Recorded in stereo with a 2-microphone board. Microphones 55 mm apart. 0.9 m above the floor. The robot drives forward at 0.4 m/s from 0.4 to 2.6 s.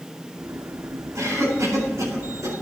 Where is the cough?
80° right, 4 m.